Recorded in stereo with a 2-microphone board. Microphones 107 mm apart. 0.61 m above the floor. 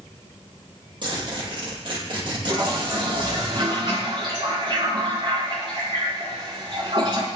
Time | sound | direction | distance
1.0 | a zipper | 45° right (ahead or behind) | 6.5 m
2.5 | a toilet flushing | 45° right (ahead or behind) | 5.5 m